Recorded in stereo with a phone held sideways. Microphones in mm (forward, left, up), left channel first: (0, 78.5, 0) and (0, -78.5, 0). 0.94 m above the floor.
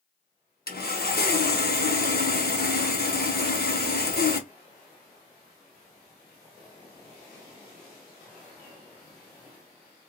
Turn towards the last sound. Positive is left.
turn(degrees=70)  # may be behind; listen again after turning